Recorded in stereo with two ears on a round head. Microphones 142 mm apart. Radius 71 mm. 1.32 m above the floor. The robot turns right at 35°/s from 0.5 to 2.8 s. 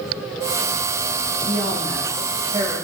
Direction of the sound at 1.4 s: 75° right.